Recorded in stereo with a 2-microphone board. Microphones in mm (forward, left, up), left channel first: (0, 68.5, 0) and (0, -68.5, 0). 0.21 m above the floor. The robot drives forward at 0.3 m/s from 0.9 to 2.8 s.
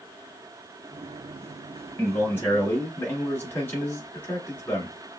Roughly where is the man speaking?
Centre.